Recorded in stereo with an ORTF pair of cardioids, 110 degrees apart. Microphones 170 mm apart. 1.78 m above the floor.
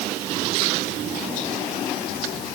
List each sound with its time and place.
Only background noise.